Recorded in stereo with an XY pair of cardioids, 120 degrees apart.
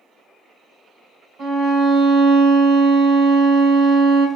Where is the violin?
65° right, 1.6 m.